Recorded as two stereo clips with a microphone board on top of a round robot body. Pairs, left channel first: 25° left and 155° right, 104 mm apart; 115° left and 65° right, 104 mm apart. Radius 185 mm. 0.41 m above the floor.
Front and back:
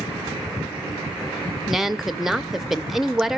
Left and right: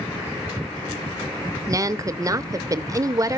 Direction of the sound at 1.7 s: 75° right.